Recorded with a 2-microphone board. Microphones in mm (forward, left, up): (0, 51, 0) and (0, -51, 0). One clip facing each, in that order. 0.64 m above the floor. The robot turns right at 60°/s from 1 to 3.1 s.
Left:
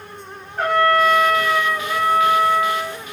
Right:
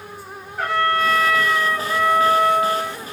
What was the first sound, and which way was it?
A trumpet, 120° left.